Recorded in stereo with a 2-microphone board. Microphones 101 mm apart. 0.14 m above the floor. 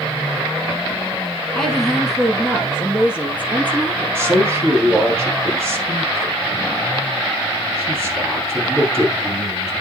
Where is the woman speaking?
5° left (ahead or behind), 1.4 m; by 4.3 s 20° right (ahead or behind), 3 m.